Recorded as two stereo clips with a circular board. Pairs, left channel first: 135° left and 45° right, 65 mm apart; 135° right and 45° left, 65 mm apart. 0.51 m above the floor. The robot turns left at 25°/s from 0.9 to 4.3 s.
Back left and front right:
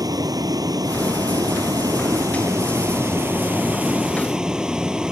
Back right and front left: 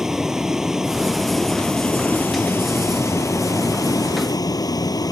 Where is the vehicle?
35° right; by 5.1 s 120° right.